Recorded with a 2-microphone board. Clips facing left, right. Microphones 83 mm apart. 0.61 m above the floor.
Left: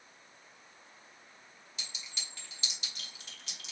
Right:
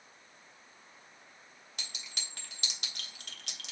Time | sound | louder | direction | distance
1.8 | a clink | right 1 dB | 60° right (ahead or behind) | 1.1 m